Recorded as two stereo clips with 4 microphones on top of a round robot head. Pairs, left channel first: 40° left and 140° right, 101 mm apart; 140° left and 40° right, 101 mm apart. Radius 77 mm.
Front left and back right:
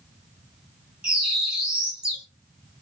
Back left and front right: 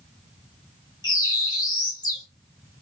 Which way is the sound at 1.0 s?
145° left.